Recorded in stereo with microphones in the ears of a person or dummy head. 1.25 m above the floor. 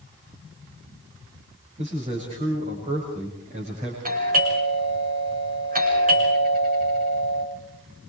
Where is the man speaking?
30° right (ahead or behind), 7 m.